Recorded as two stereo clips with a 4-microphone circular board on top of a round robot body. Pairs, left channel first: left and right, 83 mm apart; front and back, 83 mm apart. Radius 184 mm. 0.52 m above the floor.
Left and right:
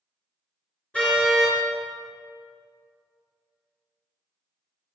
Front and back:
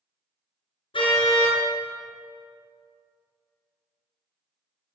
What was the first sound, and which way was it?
A car horn, 15° left.